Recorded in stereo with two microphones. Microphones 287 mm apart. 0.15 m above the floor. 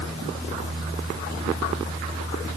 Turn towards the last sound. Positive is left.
No sound to turn to.